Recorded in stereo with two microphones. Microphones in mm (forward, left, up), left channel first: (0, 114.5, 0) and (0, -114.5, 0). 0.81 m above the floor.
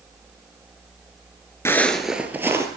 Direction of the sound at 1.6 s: 10° left (ahead or behind).